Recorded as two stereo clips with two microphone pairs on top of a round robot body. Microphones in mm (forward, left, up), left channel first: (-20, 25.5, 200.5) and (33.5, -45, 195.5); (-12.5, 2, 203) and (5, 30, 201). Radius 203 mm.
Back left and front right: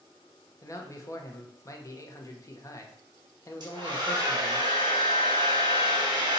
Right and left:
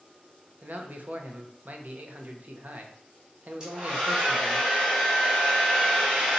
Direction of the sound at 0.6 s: 80° left.